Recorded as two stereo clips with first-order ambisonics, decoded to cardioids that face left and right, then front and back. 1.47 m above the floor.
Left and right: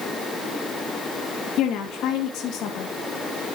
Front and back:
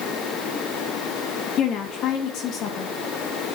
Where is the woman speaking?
45° left, 2 m.